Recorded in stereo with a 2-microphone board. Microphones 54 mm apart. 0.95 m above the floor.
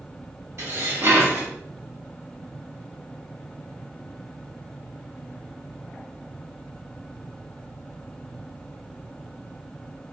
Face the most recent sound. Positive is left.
turn(degrees=-70)  # may be behind; listen again after turning